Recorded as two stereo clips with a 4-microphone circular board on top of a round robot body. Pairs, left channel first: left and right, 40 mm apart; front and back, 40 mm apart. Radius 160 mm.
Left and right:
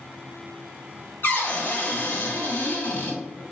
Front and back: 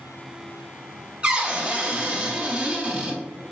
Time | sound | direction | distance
1.2 | a cupboard door | 120° left | 1.2 m